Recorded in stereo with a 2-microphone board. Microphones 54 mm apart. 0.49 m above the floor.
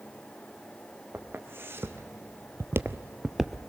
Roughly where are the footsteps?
Right.